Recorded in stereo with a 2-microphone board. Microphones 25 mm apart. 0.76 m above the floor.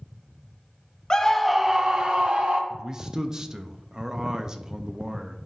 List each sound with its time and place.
1.1 s a scream: 30° left (ahead or behind), 0.7 m; by 2.6 s 50° right (ahead or behind), 1.5 m
2.7 s a man speaking: 25° right (ahead or behind), 0.5 m